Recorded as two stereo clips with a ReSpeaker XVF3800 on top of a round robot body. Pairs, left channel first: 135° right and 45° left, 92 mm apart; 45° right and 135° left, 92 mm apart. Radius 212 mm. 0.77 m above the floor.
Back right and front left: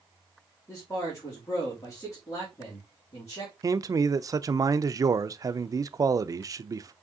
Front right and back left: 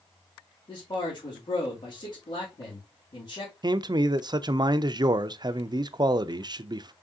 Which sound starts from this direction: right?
A man speaking, at 0.7 s.